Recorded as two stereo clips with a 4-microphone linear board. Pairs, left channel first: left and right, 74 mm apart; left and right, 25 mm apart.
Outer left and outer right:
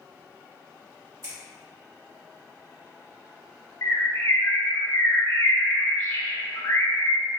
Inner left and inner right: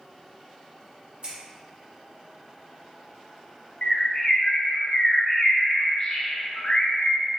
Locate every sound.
1.2 s scissors: 45° right (ahead or behind), 1.9 m
3.8 s a bird: 45° left (ahead or behind), 1.0 m